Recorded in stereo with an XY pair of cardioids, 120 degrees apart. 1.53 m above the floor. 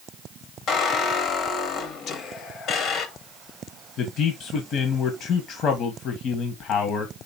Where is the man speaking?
60° left, 1.8 m.